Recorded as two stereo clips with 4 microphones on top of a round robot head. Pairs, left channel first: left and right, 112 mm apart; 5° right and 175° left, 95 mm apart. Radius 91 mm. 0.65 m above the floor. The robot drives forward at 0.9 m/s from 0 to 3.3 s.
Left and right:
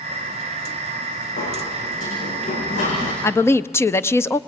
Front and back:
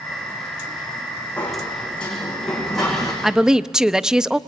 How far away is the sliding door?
About 8 m.